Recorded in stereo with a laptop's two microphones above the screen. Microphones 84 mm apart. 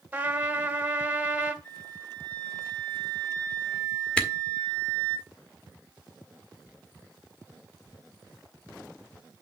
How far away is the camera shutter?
About 1.4 m.